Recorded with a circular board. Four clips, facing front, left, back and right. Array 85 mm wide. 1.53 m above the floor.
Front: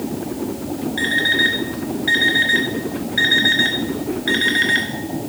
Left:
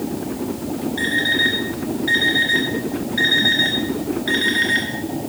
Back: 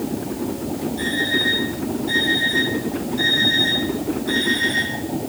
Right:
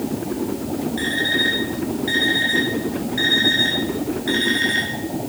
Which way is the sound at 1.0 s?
10° left.